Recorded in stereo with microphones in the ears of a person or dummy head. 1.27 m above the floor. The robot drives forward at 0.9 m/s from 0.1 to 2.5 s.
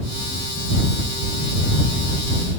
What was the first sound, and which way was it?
Only background noise.